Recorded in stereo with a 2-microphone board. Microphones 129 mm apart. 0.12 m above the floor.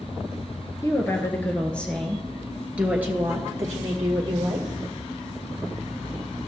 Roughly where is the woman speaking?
Left.